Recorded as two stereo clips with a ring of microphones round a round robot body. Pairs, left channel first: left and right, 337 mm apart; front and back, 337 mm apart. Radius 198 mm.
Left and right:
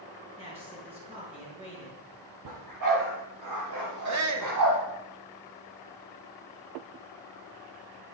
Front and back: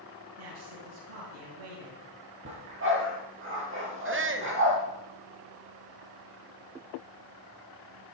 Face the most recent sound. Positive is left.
turn(degrees=-125)